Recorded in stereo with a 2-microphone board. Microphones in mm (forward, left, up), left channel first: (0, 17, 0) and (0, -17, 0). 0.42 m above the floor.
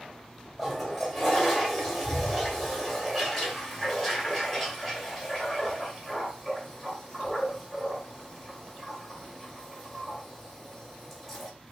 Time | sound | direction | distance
0.6 | a toilet flushing | centre (ahead or behind) | 1.6 m